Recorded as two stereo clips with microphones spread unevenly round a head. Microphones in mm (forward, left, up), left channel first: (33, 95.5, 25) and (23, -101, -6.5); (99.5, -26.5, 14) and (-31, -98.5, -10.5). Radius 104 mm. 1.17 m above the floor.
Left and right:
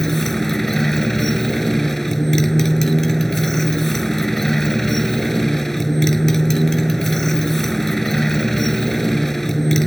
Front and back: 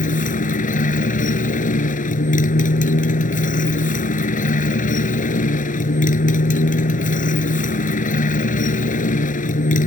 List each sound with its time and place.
0.0 s a motorcycle: straight ahead